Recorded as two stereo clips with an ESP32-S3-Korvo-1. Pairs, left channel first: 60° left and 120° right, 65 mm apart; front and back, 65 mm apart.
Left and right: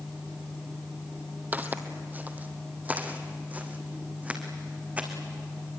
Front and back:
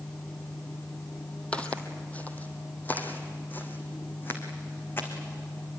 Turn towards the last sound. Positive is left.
turn(degrees=-55)